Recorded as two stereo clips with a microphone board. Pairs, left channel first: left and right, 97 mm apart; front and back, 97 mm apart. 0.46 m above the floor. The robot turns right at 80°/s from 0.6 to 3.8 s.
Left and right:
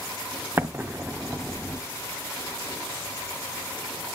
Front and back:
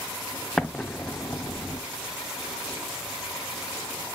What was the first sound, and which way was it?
An explosion, 80° right.